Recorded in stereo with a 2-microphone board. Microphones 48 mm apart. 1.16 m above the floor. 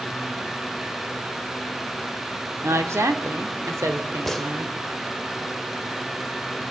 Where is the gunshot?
5° left (ahead or behind), 0.9 m.